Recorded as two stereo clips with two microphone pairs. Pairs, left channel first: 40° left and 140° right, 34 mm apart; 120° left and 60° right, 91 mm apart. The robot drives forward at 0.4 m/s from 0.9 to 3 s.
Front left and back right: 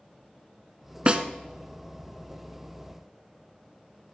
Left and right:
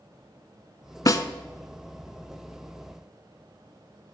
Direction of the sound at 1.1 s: 165° left.